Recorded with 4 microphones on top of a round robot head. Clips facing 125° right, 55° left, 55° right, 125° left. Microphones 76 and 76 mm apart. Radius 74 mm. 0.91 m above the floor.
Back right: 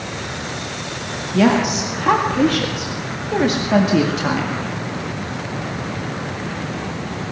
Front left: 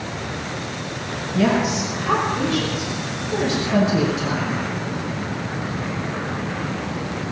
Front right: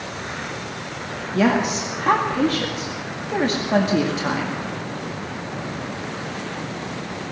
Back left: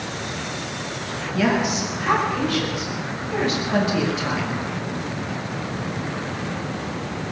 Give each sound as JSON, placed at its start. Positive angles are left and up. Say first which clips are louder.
{"t": 1.3, "sound": "a woman speaking", "louder": "back right 4 dB, front right 2 dB", "azimuth_deg": -105, "distance_m": 1.9}